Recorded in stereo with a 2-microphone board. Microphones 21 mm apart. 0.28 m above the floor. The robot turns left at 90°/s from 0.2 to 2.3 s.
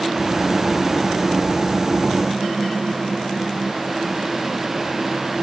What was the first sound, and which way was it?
Only background noise.